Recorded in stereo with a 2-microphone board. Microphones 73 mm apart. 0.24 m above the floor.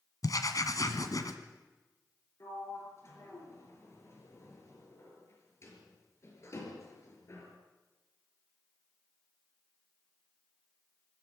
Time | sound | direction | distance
0.2 | writing | 55° left (ahead or behind) | 1.8 m
2.4 | a sliding door | 40° left (ahead or behind) | 4.5 m